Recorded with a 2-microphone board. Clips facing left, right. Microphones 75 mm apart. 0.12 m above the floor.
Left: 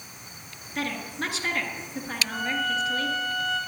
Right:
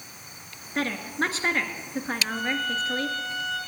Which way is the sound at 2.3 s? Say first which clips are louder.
Left 3 dB; 10° left (ahead or behind).